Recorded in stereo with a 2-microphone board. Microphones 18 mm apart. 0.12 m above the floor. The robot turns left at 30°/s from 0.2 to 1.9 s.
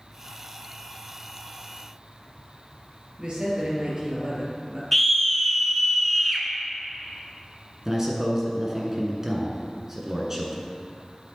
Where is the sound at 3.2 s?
55° right (ahead or behind), 3 m.